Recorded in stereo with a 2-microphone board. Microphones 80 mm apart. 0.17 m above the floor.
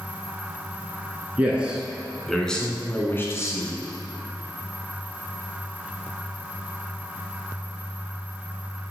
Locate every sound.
1.4 s a man speaking: 20° right (ahead or behind), 1.8 m; by 3.7 s 45° left (ahead or behind), 1.6 m